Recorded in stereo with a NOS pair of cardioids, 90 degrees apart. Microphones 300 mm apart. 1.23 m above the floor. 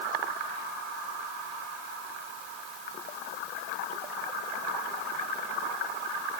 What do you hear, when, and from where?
Only background noise.